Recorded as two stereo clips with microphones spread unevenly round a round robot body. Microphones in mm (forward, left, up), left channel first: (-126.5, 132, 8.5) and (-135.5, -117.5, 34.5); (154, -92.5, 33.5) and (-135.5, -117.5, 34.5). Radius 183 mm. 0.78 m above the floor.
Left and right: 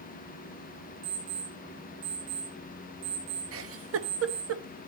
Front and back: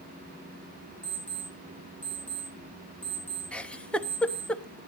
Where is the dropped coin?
I don't hear a dropped coin.